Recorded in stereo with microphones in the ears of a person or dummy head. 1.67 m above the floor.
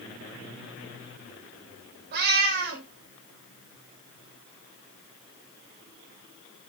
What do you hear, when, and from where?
2.1 s a cat meowing: 55° right (ahead or behind), 3.5 m